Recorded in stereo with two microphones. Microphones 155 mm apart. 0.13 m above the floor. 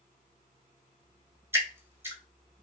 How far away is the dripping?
About 0.9 m.